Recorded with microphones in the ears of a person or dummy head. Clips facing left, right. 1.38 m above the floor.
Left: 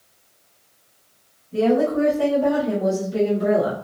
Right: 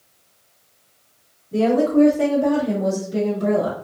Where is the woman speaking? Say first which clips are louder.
Right 2 dB; 60° right (ahead or behind), 0.7 m; by 3.8 s 20° left (ahead or behind), 1.1 m.